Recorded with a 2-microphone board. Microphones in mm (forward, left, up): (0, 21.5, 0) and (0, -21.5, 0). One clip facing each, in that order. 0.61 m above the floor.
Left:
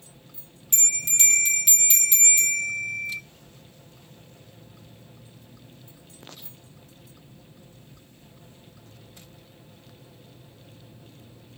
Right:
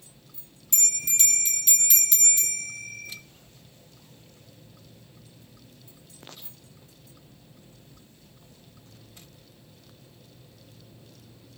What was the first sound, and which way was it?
A bell, 35° left (ahead or behind).